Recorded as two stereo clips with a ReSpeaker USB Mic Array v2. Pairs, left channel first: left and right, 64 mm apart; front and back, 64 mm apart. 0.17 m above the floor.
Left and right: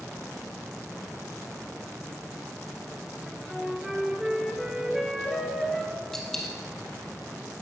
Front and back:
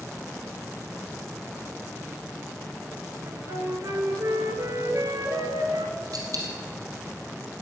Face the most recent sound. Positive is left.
turn(degrees=175)